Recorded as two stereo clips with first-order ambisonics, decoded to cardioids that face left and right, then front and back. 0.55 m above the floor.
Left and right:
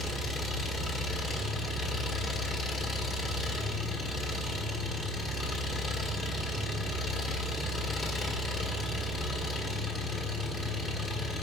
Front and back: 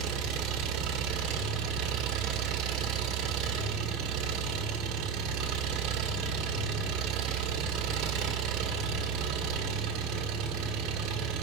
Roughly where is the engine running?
Behind.